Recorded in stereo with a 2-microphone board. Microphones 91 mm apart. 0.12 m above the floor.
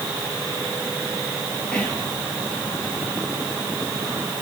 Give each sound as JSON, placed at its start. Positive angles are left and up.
{"t": 1.7, "sound": "whispering", "side_deg": 15, "distance_m": 3.0}